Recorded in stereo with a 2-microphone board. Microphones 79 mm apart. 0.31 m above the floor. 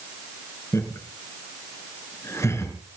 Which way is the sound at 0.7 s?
35° left (ahead or behind).